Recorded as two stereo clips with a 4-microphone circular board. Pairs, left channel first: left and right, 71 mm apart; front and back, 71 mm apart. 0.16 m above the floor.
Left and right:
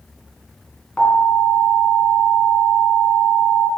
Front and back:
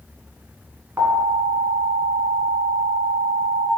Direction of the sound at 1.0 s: 160° left.